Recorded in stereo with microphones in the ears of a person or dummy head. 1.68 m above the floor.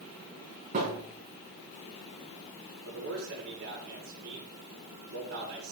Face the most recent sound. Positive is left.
turn(degrees=-70)  # may be behind; listen again after turning